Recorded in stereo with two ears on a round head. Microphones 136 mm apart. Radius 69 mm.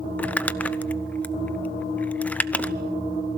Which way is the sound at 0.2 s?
10° left (ahead or behind).